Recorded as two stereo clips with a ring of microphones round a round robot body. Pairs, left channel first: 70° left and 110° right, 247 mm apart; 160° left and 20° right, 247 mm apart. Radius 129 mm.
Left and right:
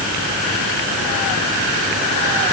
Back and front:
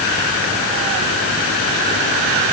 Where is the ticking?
No ticking in this recording.